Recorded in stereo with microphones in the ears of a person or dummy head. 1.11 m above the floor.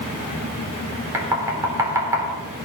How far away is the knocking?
About 3 m.